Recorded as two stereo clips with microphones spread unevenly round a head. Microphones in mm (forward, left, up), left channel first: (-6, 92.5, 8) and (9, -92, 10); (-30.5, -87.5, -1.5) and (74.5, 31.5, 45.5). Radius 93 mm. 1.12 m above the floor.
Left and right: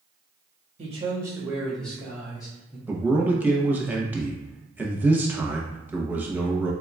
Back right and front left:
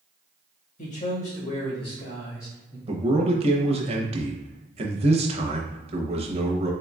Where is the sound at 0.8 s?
140° right, 1.7 m; by 2.8 s 155° left, 2.5 m.